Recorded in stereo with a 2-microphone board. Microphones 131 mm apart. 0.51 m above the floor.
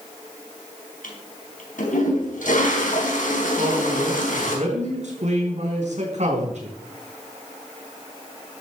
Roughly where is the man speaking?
Right.